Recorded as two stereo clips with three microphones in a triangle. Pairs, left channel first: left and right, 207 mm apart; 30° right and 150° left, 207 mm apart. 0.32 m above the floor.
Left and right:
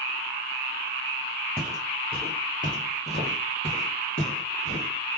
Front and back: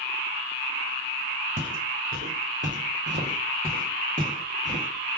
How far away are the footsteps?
About 1.0 m.